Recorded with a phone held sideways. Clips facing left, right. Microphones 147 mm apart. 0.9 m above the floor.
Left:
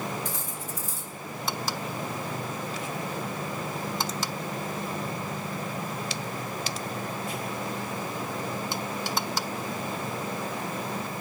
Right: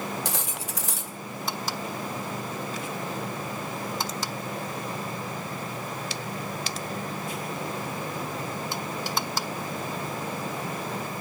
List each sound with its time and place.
0.2 s cutlery clinking: 80° right, 0.7 m